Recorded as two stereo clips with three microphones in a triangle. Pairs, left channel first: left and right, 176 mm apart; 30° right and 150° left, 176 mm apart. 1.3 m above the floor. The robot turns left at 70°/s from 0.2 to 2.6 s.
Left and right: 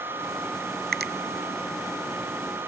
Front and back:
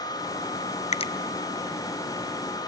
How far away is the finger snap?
About 0.6 m.